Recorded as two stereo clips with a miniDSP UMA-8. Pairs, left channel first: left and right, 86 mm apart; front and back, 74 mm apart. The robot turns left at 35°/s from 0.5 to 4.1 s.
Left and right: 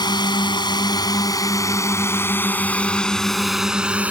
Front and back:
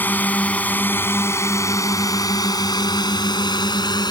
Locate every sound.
0.0 s a drone: 60° left; by 4.1 s 15° right